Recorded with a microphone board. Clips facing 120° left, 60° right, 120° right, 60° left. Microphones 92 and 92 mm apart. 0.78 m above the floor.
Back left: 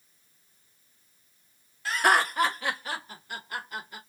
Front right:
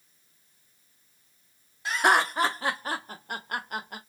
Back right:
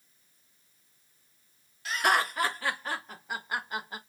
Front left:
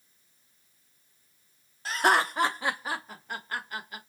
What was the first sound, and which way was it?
Laughter, 10° left.